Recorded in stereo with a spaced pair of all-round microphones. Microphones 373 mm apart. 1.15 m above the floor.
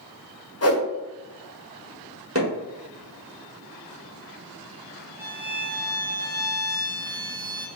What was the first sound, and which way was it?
A whoosh, 40° left (ahead or behind).